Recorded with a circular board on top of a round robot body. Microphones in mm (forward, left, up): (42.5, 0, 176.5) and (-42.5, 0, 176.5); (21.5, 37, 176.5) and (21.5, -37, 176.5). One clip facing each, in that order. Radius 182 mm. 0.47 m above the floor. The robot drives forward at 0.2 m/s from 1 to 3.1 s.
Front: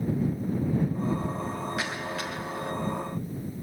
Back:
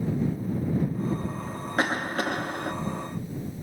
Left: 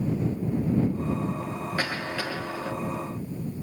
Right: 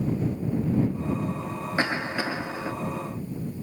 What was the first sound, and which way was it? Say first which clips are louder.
A cough: back 6 dB, right 5 dB; 150° right.